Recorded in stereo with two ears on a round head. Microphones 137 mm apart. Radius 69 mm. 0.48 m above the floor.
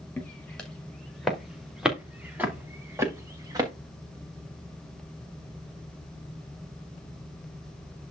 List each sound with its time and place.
0.2 s footsteps: 10° left (ahead or behind), 3.5 m; by 3.7 s 25° right (ahead or behind), 3 m